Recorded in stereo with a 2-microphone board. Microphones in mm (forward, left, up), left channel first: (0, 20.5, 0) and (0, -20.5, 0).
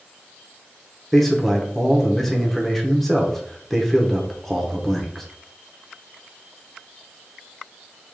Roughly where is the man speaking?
Centre.